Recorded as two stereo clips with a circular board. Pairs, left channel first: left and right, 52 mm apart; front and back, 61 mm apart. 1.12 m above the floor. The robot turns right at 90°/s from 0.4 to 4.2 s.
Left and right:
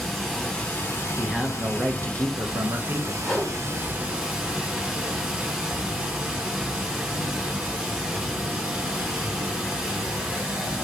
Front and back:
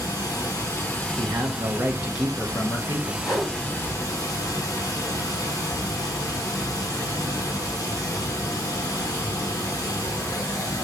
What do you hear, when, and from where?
0.0 s running water: 5° left, 0.9 m; by 10.8 s 15° right, 0.9 m
1.2 s a man speaking: 170° left, 0.6 m; by 3.1 s 15° right, 0.6 m
3.2 s a whoosh: straight ahead, 2.0 m; by 3.5 s 30° left, 2.0 m